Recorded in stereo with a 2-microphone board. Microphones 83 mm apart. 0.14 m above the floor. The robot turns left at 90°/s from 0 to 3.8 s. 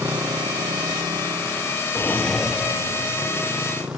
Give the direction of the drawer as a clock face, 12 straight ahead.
11 o'clock.